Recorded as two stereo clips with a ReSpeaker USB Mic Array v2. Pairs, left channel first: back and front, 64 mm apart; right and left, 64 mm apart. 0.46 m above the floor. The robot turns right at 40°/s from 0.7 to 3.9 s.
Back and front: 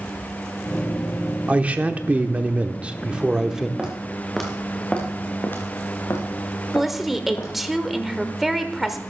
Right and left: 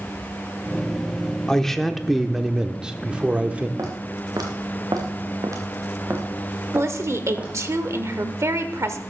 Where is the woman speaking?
85° left, 1.1 m.